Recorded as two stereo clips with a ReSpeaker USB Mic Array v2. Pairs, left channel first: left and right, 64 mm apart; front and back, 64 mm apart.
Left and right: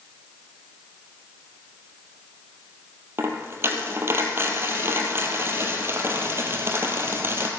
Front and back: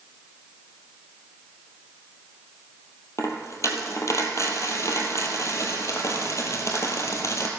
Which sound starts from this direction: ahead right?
A dropped coin, at 3.2 s.